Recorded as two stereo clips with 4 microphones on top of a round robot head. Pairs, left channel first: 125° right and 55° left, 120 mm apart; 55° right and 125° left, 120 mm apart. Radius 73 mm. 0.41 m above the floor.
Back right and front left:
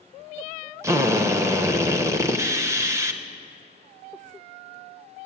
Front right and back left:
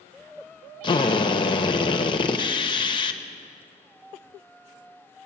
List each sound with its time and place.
0.8 s a drill: 10° right, 1.0 m